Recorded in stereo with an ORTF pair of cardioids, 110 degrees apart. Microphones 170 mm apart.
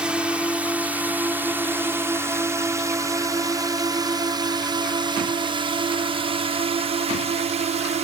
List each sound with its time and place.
0.0 s a drone: 5° right; by 8.0 s 45° right